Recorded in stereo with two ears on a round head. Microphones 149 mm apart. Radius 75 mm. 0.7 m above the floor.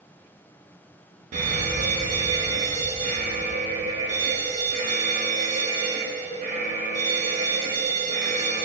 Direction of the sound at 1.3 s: 45° right (ahead or behind).